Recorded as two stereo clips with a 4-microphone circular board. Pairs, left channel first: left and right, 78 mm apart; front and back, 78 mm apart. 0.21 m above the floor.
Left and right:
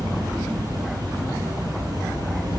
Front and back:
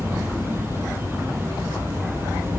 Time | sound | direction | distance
0.0 | an insect | 125° right | 3.5 m